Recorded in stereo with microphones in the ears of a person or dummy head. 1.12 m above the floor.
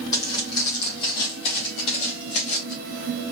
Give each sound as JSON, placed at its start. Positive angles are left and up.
{"t": 0.1, "sound": "footsteps", "side_deg": 20, "distance_m": 1.9}